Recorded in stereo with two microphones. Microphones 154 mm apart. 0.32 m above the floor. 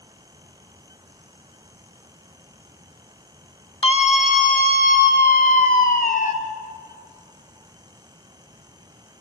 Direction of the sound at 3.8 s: 40° left (ahead or behind).